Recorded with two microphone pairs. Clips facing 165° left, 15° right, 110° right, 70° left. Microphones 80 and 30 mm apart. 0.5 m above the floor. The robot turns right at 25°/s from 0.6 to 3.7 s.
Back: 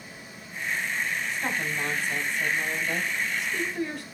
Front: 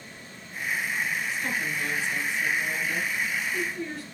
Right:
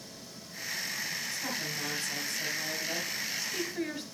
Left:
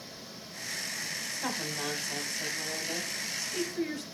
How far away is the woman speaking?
About 1.5 m.